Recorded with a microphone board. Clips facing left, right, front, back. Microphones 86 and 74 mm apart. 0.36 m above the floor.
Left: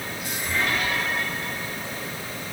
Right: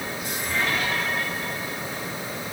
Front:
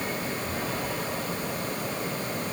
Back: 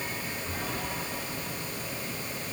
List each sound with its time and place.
Only background noise.